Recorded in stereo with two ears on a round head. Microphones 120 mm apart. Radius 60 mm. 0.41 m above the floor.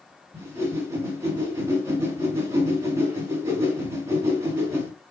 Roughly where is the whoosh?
Right.